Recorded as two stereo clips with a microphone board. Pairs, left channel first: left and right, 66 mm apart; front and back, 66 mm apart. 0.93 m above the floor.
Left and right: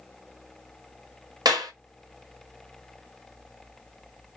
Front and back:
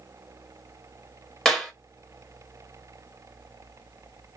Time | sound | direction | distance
1.4 | a clap | 80° right | 1.5 m